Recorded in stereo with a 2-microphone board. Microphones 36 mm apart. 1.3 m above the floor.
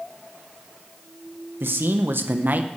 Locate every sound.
1.6 s a man speaking: 75° right (ahead or behind), 0.9 m; by 2.7 s 55° right (ahead or behind), 0.9 m